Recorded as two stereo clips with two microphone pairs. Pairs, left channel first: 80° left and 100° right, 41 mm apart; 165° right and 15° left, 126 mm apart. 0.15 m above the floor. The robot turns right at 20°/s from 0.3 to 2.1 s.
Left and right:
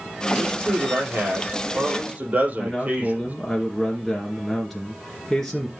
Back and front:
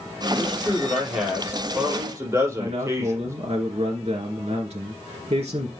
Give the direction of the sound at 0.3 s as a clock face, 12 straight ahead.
3 o'clock.